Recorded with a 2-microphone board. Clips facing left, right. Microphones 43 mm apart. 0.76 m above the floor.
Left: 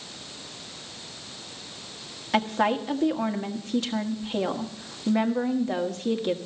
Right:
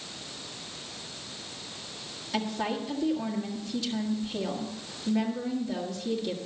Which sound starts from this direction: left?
A woman speaking, at 2.3 s.